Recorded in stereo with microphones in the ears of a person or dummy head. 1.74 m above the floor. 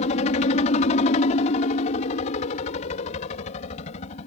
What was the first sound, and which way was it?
A helicopter, 40° left (ahead or behind).